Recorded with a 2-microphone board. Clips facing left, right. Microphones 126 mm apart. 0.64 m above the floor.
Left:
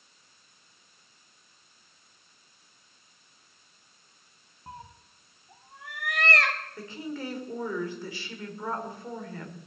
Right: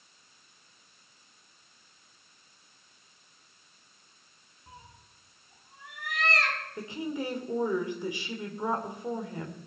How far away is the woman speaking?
About 1.9 m.